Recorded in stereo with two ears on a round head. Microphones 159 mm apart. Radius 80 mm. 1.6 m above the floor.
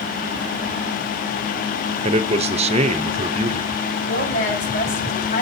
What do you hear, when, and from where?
2.0 s a man speaking: 35° right (ahead or behind), 0.7 m
4.1 s a woman speaking: 45° left (ahead or behind), 4.5 m